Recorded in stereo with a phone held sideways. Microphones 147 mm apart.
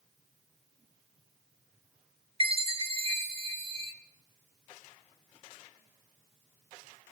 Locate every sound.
2.4 s a chime: 40° right (ahead or behind), 0.7 m